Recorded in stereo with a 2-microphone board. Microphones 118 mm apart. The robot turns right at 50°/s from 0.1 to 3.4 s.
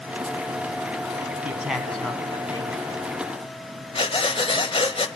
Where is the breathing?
50° left (ahead or behind), 1.0 m.